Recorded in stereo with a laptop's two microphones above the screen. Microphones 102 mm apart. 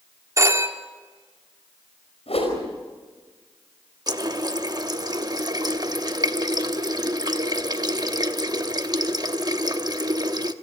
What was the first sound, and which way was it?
A phone ringing, 30° right (ahead or behind).